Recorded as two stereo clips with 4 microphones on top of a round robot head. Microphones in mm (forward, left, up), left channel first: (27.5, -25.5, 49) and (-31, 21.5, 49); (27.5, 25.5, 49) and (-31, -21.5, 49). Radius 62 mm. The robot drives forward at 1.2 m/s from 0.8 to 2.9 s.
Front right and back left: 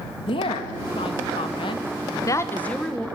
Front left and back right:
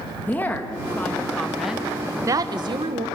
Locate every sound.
0.3 s a woman speaking: 30° right, 2 m; by 3.1 s 125° right, 1.3 m